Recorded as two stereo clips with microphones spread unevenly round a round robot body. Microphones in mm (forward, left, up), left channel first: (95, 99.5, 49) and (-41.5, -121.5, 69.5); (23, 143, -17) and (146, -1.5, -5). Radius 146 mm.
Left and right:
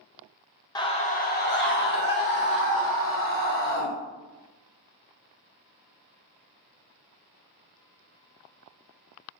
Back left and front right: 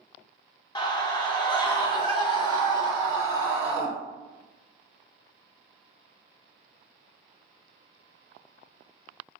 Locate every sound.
0.8 s a scream: 105° left, 0.9 m; by 3.9 s 65° left, 2.5 m